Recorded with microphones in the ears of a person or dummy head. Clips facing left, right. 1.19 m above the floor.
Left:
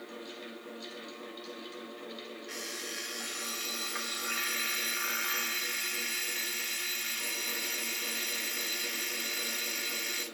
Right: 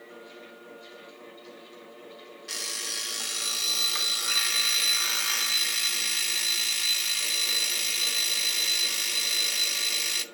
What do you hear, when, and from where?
0.0 s a fan: 55° left (ahead or behind), 5.5 m
2.5 s an alarm clock: 55° right (ahead or behind), 0.8 m